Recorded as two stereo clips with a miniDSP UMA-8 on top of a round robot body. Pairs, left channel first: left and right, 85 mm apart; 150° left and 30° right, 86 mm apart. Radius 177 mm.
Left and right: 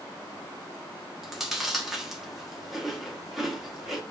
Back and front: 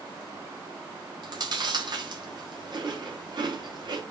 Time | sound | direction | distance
1.2 | chewing | 5° right | 2.5 m